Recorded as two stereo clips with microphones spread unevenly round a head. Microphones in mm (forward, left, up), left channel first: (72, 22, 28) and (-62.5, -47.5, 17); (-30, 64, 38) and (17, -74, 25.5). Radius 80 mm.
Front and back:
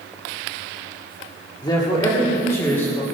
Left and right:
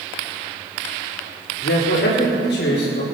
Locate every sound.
1.6 s a man speaking: 95° left, 1.9 m; by 3.0 s 110° left, 2.5 m